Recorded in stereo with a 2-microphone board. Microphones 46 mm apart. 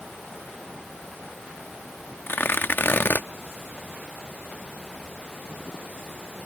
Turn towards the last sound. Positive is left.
turn(degrees=50)  # may be behind; listen again after turning